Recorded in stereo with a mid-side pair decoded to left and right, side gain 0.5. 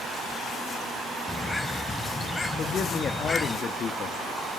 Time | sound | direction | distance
1.3 | a bird | 25° left | 0.9 m
2.6 | a man speaking | 50° left | 2.0 m